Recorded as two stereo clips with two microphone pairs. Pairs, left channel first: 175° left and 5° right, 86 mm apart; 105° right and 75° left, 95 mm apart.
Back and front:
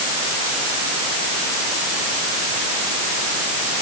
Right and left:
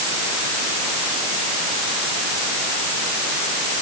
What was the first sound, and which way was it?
Only background noise.